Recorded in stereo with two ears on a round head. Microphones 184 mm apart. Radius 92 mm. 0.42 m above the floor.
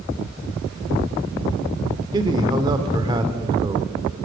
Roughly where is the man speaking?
Centre.